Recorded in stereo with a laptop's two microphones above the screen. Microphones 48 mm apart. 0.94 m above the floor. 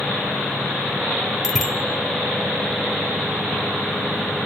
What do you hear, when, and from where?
1.4 s a bicycle bell: centre (ahead or behind), 2 m